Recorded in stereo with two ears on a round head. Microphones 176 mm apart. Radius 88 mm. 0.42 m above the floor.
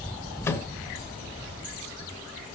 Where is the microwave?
15° left (ahead or behind), 1.5 m.